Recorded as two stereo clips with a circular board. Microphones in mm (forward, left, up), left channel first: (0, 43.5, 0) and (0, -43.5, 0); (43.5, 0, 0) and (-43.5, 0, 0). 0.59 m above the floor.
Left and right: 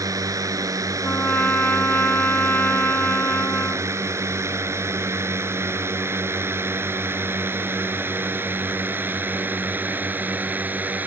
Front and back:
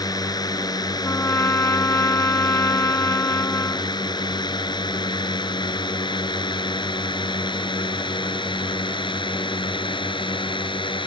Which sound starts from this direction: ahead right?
A drone, at 0.0 s.